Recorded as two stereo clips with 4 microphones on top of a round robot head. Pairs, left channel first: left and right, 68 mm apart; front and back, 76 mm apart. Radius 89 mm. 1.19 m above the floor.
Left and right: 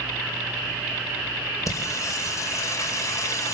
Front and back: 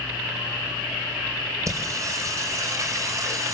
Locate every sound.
1.7 s singing: 130° left, 4 m